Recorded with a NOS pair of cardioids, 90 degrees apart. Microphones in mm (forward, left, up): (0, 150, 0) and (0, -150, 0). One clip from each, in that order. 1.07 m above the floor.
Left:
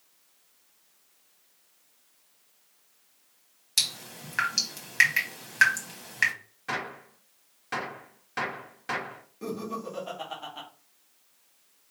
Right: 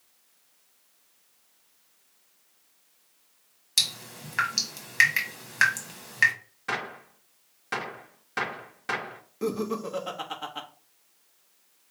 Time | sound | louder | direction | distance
3.8 | dripping | right 2 dB | 5° right | 1.7 m
6.7 | a gunshot | right 1 dB | 20° right | 1.4 m
9.4 | laughter | right 5 dB | 45° right | 1.3 m